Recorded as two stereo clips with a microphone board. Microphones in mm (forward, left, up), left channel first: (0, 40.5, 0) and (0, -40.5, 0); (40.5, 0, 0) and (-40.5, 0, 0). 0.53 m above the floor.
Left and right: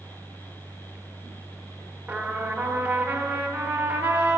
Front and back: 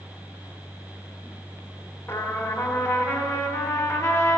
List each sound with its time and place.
2.1 s a trumpet: 35° right, 0.9 m